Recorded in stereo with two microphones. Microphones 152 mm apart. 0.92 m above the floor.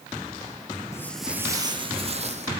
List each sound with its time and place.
0.9 s footsteps: 20° left (ahead or behind), 0.9 m; by 2.5 s 45° right (ahead or behind), 1.9 m